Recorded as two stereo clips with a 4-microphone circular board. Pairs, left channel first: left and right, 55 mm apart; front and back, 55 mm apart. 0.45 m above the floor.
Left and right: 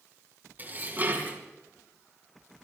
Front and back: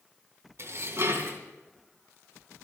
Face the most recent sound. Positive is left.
turn(degrees=-145)